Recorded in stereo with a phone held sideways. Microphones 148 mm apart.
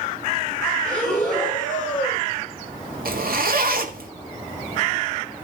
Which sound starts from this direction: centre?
Breathing, at 0.8 s.